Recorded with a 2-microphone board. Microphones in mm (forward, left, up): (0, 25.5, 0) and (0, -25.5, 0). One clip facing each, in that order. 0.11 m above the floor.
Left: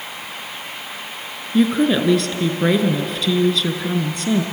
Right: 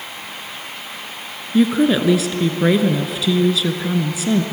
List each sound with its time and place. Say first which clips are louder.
1.5 s a woman speaking: right 1 dB; 5° right (ahead or behind), 1.9 m